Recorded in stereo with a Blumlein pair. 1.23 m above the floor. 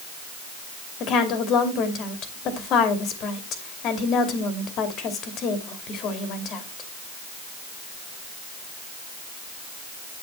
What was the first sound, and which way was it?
A woman speaking, 35° left.